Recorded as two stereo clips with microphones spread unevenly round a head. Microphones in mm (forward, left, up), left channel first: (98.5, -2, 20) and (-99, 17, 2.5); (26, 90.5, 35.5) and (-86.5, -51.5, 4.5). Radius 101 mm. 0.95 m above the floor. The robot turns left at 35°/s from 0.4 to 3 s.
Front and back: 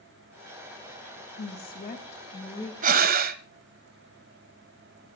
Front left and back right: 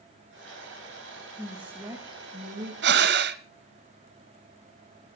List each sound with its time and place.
1.4 s a woman speaking: 40° right, 2.0 m; by 2.7 s 85° right, 2.0 m
2.8 s breathing: 140° right, 1.1 m; by 3.4 s 145° right, 1.1 m